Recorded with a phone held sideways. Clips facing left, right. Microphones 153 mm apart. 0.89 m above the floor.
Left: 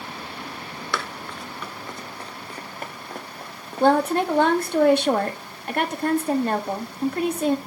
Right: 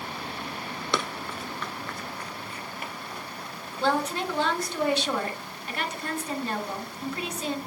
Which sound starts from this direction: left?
A woman speaking, at 3.8 s.